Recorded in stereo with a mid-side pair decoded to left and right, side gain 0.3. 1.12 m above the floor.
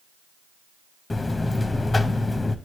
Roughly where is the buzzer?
Ahead left.